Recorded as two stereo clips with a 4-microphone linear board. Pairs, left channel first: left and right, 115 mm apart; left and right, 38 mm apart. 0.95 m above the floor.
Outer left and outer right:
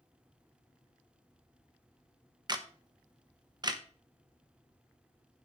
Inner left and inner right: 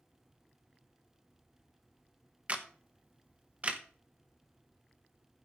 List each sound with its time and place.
2.5 s a camera shutter: 35° right (ahead or behind), 1.0 m